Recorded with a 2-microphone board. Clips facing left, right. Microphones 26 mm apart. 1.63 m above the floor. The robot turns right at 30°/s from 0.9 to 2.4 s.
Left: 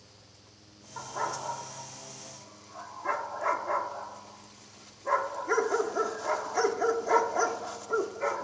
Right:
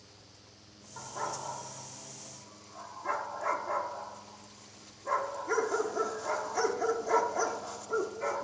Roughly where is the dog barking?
Left.